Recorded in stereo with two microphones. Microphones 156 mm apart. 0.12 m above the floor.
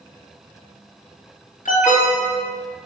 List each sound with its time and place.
1.6 s an alarm: 50° left (ahead or behind), 3.5 m